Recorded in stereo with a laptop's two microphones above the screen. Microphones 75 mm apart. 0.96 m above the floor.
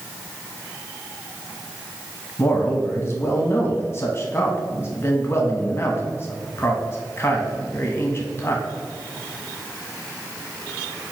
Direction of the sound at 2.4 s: 35° left (ahead or behind).